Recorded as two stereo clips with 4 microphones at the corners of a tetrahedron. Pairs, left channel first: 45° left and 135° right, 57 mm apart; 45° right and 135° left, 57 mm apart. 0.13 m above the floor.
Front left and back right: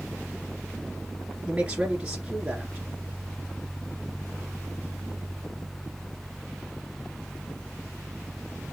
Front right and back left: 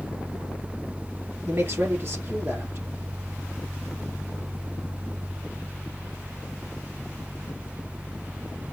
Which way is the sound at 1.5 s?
160° left.